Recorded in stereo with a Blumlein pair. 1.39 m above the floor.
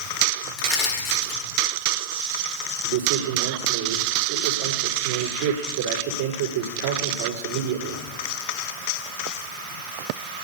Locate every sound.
0.6 s crushing: 30° left, 4 m
2.8 s a man speaking: 45° right, 4.5 m